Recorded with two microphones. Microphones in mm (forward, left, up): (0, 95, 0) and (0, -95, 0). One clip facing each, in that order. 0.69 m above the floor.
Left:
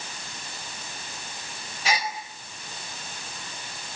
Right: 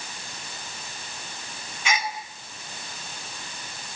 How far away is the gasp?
About 4 m.